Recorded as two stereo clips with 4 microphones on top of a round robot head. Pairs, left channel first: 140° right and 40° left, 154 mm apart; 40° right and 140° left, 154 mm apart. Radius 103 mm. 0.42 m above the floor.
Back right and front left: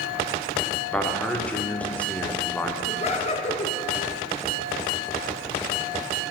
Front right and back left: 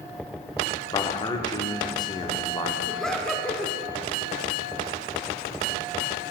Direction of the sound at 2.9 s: 125° right.